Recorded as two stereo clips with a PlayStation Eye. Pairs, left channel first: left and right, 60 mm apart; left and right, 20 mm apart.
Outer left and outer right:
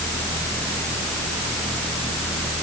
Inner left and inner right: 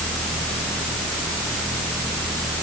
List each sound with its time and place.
Only background noise.